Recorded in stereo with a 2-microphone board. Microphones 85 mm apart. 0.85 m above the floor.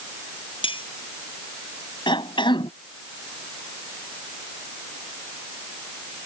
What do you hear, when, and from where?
0.6 s cutlery clinking: 90° left
2.1 s a cough: 70° left (ahead or behind)